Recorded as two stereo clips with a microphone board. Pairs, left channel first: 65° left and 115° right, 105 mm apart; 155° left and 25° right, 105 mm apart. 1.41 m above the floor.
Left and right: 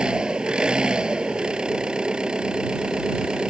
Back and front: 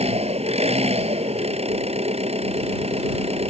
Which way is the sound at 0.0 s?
30° right.